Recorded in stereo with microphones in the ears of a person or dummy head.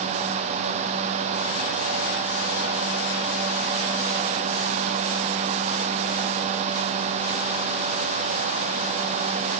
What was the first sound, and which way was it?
Only background noise.